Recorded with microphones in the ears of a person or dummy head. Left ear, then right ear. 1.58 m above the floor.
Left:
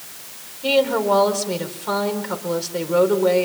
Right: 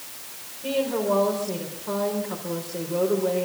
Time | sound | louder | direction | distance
0.6 | a woman speaking | left 7 dB | 70° left (ahead or behind) | 4.5 m